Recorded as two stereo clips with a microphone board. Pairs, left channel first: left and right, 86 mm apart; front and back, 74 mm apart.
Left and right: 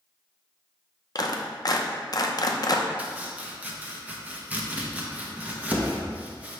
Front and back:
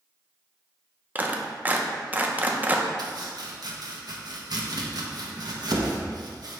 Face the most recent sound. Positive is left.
turn(degrees=-160)